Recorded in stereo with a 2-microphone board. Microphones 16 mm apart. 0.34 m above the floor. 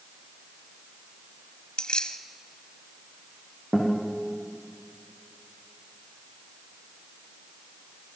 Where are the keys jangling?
60° left (ahead or behind), 1.3 m.